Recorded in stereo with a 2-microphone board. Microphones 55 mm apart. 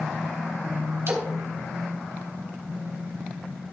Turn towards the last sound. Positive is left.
turn(degrees=-50)  # may be behind; listen again after turning